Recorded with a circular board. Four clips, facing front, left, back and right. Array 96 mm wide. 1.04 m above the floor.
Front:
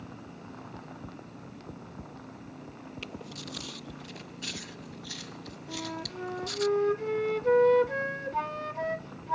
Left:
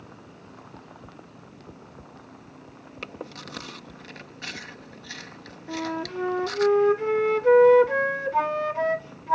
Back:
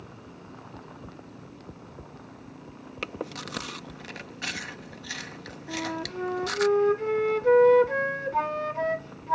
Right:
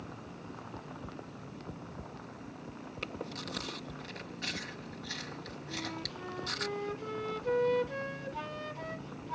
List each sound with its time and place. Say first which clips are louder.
3.0 s chewing: left 3 dB, back 10 dB; 165° left
5.7 s a flute: left 13 dB, back 6 dB; 105° left